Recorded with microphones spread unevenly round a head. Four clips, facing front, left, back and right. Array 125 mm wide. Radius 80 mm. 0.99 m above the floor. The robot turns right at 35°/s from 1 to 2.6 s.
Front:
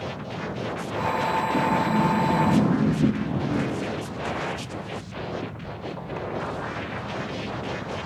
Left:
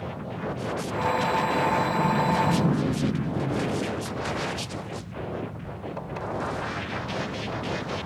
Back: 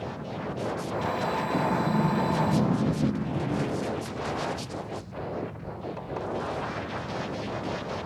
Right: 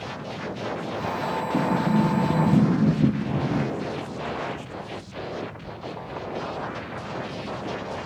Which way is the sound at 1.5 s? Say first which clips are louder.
Right 1 dB, front 2 dB; 110° right.